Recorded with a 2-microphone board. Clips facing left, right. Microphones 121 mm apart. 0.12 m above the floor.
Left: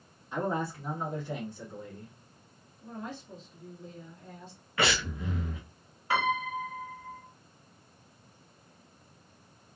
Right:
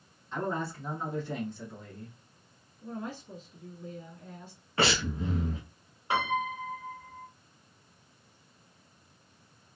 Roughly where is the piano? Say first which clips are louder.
Left 1 dB; right.